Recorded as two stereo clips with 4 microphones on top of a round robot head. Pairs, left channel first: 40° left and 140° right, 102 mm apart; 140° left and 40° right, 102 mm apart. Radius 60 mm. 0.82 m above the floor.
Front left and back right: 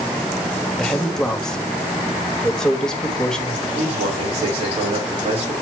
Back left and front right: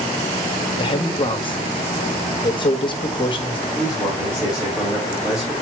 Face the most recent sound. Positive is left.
turn(degrees=-120)